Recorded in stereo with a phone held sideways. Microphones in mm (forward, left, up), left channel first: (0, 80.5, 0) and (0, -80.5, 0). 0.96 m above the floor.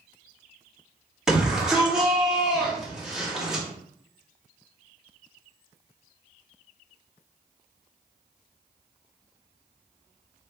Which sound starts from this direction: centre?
A shout, at 1.3 s.